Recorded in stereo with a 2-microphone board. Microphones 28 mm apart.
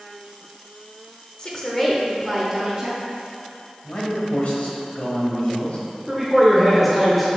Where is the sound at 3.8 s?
55° left (ahead or behind), 1.5 m.